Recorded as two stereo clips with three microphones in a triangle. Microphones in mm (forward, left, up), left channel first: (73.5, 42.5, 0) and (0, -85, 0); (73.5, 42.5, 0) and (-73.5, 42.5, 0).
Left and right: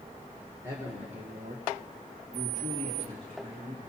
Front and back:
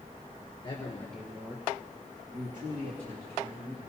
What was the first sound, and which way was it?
A man speaking, 50° right.